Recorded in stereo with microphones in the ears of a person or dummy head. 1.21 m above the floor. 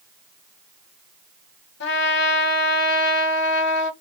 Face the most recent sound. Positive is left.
turn(degrees=65)  # may be behind; listen again after turning